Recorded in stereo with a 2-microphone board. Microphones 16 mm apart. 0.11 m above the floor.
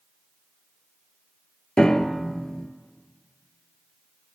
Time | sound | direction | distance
1.8 | a piano | 50° left (ahead or behind) | 0.7 m